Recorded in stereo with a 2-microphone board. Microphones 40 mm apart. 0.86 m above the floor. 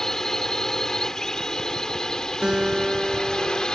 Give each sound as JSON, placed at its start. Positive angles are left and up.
{"t": 0.0, "sound": "a drone", "side_deg": 10}
{"t": 2.4, "sound": "a guitar", "side_deg": -20}